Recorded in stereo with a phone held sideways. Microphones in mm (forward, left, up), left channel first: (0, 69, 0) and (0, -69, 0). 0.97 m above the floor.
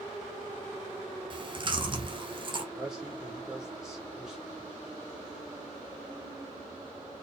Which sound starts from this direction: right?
Chewing, at 1.3 s.